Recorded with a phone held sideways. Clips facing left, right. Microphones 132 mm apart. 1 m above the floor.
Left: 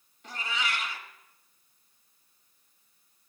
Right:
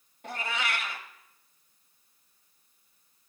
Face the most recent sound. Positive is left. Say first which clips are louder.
# right 1 dB
turn(degrees=-55)  # may be behind; listen again after turning